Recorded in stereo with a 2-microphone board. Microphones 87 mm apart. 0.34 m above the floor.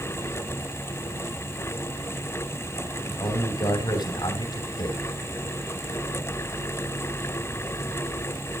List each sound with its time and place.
3.0 s a man speaking: 60° left (ahead or behind), 3 m